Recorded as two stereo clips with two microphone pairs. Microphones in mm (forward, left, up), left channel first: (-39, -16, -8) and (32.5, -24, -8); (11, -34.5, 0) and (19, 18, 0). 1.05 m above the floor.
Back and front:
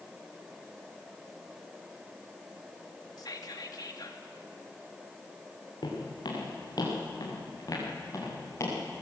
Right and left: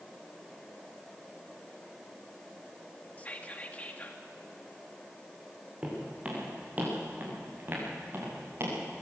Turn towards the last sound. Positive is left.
turn(degrees=120)